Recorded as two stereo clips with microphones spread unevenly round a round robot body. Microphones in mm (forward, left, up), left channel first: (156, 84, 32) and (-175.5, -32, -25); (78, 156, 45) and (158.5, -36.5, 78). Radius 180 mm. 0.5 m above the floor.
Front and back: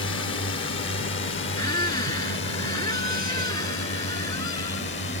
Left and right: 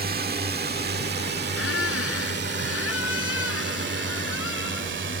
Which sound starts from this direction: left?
A squeak, at 1.6 s.